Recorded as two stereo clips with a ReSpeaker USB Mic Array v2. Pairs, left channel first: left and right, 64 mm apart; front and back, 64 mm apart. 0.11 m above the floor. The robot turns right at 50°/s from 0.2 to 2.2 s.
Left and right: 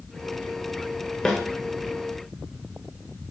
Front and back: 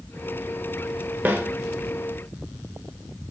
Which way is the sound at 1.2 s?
155° left.